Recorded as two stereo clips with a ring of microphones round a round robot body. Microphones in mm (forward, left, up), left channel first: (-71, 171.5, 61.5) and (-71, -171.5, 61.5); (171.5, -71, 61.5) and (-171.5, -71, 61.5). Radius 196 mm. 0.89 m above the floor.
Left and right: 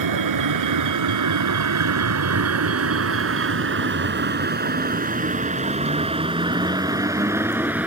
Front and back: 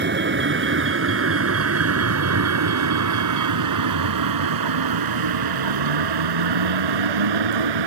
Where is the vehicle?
120° right; by 7.9 s 175° right.